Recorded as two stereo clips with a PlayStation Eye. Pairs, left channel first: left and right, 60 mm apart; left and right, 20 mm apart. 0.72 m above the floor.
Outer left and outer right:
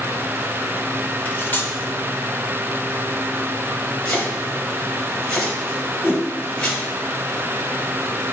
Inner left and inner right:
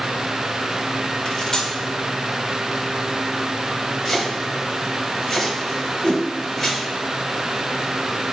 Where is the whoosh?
35° left (ahead or behind), 2.5 m.